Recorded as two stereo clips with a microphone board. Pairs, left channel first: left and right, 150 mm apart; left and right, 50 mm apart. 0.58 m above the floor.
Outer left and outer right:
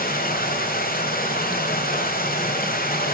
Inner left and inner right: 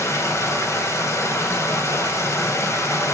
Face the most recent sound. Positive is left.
turn(degrees=75)  # may be behind; listen again after turning